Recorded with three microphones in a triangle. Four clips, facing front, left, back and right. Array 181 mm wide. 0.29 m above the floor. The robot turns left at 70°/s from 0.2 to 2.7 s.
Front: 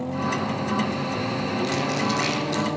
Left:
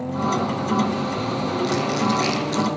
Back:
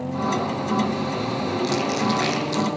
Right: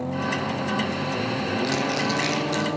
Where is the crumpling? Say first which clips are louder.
Left 5 dB, back 3 dB; 145° right, 3.5 m; by 2.7 s 145° left, 3.5 m.